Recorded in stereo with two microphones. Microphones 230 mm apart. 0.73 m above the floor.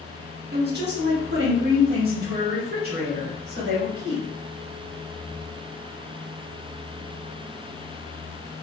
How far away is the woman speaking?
About 1.0 m.